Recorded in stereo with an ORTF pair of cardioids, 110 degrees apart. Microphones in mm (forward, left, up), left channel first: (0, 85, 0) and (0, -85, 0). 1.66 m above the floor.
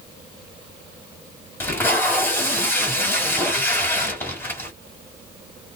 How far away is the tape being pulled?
About 1.5 m.